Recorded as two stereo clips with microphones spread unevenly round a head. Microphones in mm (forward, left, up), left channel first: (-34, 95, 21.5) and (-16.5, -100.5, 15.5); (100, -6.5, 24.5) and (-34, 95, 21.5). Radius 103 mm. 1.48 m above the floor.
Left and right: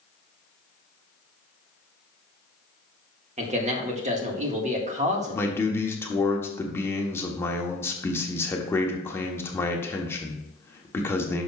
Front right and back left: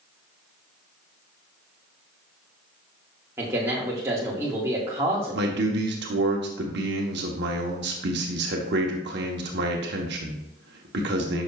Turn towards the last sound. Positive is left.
turn(degrees=175)